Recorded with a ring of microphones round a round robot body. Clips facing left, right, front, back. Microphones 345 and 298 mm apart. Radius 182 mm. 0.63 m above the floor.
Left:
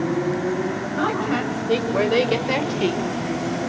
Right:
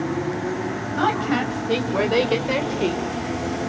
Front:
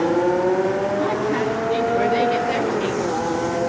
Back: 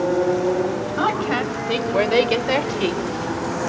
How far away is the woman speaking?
About 4 m.